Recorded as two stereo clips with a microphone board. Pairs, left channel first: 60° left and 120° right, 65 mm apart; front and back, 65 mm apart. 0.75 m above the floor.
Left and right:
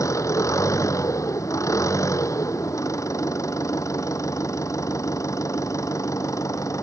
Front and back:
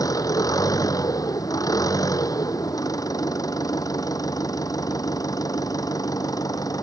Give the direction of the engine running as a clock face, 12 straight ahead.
11 o'clock.